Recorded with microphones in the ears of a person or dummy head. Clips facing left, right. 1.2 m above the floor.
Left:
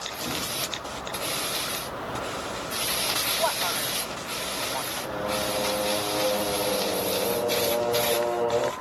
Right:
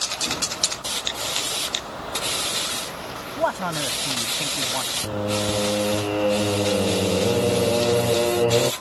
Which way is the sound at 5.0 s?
30° right (ahead or behind).